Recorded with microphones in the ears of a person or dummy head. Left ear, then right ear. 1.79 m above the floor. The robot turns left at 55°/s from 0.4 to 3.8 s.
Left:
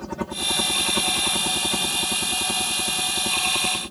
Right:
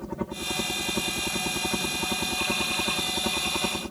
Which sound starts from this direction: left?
A helicopter, at 0.0 s.